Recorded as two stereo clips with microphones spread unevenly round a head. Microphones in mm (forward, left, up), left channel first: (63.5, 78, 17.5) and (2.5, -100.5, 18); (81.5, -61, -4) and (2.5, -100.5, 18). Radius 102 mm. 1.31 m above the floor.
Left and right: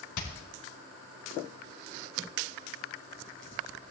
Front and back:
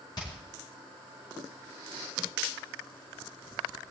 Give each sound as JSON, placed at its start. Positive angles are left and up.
{"t": 0.2, "sound": "hammering", "azimuth_deg": 100, "distance_m": 4.0}